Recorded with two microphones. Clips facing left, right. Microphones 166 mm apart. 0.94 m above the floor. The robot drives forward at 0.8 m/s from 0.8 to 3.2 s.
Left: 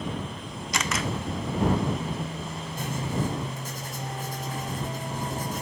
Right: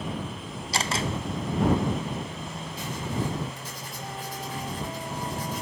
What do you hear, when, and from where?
0.7 s a camera shutter: 30° right (ahead or behind), 0.9 m; by 1.1 s 25° right (ahead or behind), 1.0 m
2.8 s writing: 50° left (ahead or behind), 4 m; by 5.6 s 45° left (ahead or behind), 4.5 m